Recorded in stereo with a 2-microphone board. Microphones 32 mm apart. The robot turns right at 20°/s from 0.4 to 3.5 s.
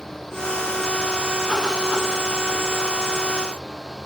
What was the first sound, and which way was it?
Only background noise.